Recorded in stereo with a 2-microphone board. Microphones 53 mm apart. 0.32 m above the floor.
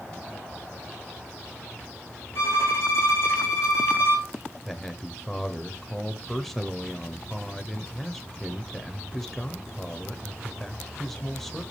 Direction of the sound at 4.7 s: 5° left (ahead or behind).